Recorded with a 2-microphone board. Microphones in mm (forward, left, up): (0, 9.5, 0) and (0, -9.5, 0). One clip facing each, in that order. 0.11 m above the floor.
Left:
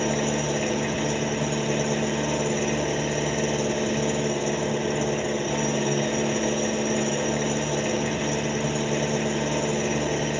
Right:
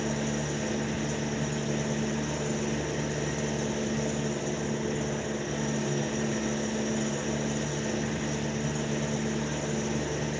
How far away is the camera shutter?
No camera shutter in this recording.